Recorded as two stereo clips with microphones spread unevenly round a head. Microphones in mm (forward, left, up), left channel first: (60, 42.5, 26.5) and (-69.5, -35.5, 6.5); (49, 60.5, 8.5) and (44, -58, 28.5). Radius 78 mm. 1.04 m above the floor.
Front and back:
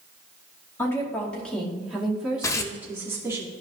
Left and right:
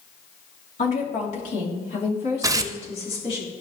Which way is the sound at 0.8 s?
110° left.